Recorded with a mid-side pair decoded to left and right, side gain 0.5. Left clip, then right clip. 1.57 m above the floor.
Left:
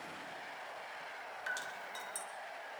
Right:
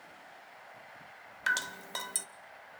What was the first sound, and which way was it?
Dripping, 60° right.